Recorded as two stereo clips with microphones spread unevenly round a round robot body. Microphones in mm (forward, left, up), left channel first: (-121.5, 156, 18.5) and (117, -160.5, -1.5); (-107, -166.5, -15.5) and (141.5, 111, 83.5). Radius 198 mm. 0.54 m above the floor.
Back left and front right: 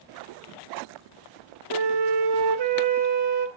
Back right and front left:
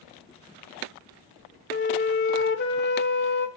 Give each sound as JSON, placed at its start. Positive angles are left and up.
{"t": 1.7, "sound": "a flute", "azimuth_deg": -80, "distance_m": 0.9}